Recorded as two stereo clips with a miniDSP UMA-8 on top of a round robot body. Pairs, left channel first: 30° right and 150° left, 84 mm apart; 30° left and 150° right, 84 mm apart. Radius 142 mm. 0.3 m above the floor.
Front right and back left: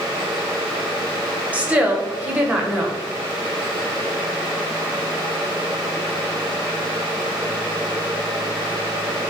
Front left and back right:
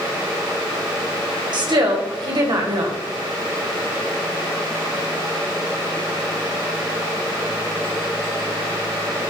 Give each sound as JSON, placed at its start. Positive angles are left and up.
{"t": 1.5, "sound": "a woman speaking", "azimuth_deg": -140, "distance_m": 2.5}